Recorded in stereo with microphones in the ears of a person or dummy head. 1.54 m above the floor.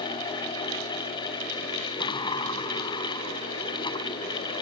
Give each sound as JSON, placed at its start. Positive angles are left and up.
{"t": 2.0, "sound": "a sliding door", "side_deg": 25}